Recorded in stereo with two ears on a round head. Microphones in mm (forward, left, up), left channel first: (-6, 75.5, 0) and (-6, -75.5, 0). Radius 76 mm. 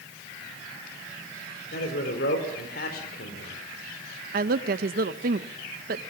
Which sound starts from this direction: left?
A man speaking, at 1.7 s.